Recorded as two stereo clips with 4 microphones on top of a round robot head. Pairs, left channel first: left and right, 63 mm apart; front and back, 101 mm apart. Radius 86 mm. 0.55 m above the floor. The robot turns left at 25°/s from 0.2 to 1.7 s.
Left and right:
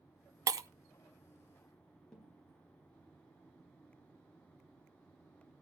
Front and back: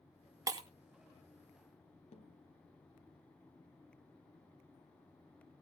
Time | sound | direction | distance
0.5 | breaking glass | 120° right | 0.9 m
2.1 | a snare drum | 10° left | 2.5 m